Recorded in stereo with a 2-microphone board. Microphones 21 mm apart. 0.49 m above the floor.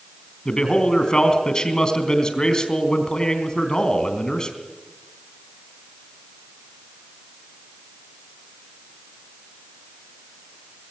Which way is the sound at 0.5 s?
35° left (ahead or behind).